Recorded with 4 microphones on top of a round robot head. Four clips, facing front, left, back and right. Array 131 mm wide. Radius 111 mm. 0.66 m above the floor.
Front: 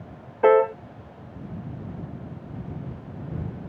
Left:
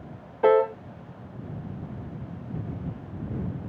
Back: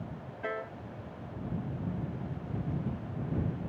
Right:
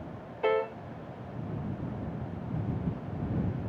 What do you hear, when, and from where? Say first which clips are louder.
0.4 s a piano: left 9 dB, front 21 dB; 30° left